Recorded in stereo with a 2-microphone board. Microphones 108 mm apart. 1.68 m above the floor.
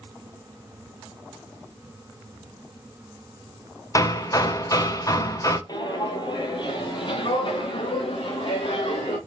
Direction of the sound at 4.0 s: 35° left (ahead or behind).